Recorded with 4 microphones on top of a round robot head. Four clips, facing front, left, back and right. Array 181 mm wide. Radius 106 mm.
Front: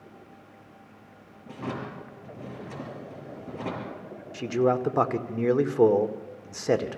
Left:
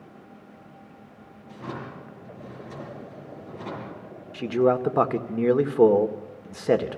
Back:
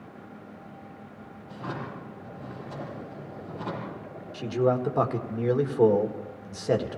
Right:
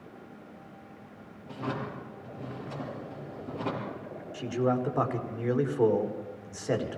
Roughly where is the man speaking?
Left.